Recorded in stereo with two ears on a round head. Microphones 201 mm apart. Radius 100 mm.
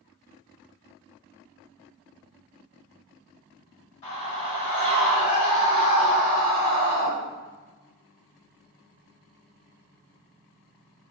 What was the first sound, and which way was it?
A scream, 30° left (ahead or behind).